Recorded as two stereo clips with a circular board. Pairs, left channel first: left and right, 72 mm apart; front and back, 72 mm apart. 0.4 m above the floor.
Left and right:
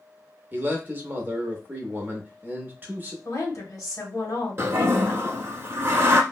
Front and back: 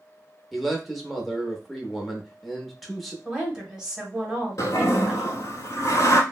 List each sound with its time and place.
0.5 s a man speaking: 90° right, 0.9 m
3.2 s a woman speaking: 105° left, 1.5 m
4.6 s a toilet flushing: 40° right, 0.8 m